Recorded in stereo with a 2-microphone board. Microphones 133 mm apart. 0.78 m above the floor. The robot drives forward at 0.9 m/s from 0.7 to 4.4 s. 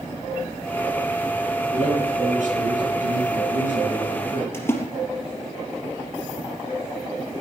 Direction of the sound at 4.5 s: 20° left (ahead or behind).